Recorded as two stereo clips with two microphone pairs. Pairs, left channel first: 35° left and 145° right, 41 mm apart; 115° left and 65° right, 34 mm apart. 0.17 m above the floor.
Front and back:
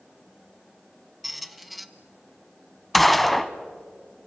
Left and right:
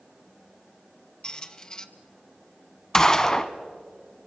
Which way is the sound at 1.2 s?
130° left.